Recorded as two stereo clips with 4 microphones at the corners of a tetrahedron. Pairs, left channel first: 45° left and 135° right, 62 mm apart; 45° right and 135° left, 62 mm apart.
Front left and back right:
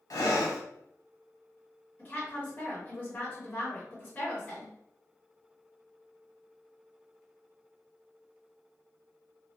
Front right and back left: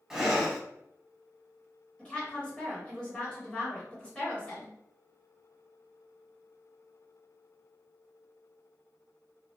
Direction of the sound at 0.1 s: 50° left.